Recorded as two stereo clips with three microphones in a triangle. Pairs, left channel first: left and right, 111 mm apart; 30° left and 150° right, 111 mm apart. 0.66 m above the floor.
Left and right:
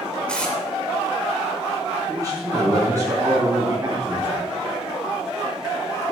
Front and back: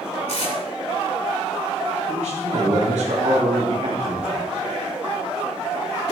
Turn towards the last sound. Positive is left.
turn(degrees=-150)